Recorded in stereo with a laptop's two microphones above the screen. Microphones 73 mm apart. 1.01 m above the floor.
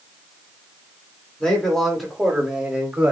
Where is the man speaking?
10° left (ahead or behind), 2.5 m; by 3.1 s 20° right (ahead or behind), 2.5 m.